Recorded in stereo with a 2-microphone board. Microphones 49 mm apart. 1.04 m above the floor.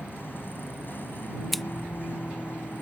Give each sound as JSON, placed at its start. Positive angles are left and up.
{"t": 0.0, "sound": "a vehicle", "side_deg": 45}
{"t": 1.5, "sound": "scissors", "side_deg": 0}